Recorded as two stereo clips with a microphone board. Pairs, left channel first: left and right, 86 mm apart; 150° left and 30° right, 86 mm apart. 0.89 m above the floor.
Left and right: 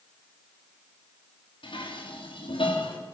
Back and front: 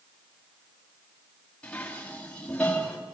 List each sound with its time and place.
1.6 s dishes clattering: 75° left, 4 m